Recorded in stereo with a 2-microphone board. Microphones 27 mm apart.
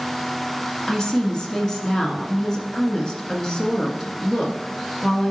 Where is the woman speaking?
20° left (ahead or behind), 1.4 m.